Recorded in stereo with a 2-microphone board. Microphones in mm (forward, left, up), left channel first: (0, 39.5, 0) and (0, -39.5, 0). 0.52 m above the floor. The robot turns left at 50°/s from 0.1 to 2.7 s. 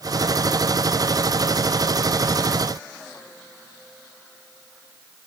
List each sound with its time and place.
Only background noise.